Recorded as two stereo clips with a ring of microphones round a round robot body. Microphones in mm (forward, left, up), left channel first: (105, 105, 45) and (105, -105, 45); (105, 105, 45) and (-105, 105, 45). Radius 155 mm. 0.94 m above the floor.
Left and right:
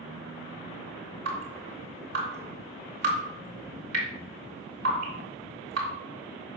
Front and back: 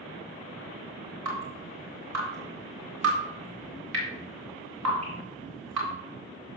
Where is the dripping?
150° right, 2.5 m.